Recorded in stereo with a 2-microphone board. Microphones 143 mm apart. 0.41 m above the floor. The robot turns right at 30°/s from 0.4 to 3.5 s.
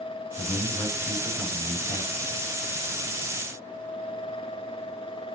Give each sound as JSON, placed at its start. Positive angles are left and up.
{"t": 0.4, "sound": "a man speaking", "azimuth_deg": 155, "distance_m": 5.5}